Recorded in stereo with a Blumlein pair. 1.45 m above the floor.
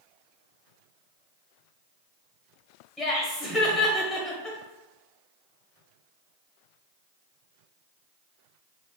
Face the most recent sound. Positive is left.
turn(degrees=0)